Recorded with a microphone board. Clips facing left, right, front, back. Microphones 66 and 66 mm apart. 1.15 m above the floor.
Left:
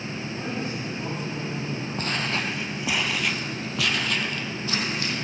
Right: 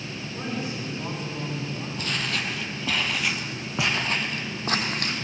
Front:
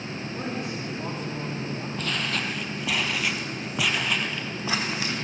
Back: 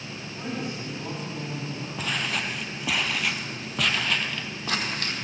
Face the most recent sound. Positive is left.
turn(degrees=-75)